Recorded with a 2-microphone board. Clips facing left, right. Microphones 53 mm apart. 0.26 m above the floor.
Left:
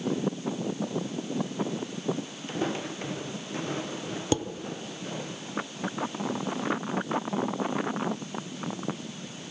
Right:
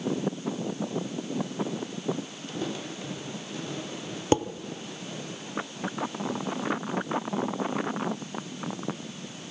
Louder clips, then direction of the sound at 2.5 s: Left 4 dB; 40° left (ahead or behind).